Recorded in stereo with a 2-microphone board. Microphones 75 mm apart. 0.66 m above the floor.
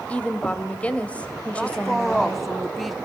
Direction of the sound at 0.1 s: 15° left (ahead or behind).